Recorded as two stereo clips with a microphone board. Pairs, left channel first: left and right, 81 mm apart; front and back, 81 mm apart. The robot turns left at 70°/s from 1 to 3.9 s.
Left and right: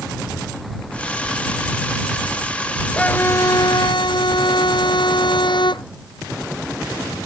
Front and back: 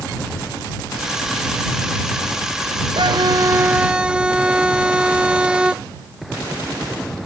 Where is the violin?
170° left; by 5.8 s 100° left.